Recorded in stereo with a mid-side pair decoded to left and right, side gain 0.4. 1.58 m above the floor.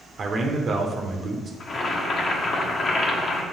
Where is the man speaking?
50° right, 1.4 m.